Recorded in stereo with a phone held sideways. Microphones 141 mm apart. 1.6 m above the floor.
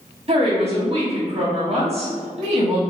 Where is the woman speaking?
50° right (ahead or behind), 1.0 m.